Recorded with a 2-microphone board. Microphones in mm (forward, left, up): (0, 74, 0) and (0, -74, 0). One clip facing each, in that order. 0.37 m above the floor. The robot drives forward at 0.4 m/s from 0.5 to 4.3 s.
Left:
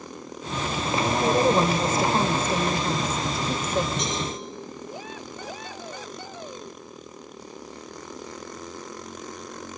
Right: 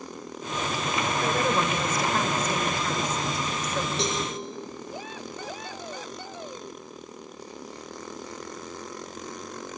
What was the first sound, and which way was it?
A woman speaking, 25° left (ahead or behind).